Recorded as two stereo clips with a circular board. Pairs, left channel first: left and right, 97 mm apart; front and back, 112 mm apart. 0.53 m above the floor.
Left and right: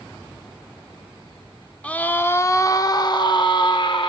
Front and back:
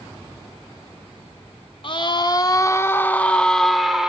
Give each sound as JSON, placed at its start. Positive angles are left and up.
{"t": 1.8, "sound": "a scream", "azimuth_deg": 15, "distance_m": 1.0}